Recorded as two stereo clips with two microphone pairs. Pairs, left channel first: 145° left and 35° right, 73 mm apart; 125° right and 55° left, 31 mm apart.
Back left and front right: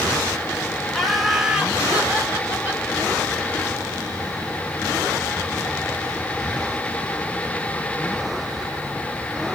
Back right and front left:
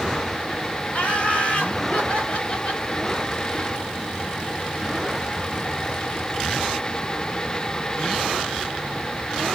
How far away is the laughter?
About 1.4 m.